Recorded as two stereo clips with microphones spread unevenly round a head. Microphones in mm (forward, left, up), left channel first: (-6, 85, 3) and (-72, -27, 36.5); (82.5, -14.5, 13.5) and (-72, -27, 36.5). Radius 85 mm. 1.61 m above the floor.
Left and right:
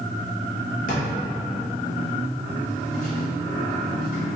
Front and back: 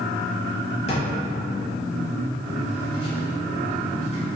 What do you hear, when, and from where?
0.9 s a drawer: 55° left, 1.0 m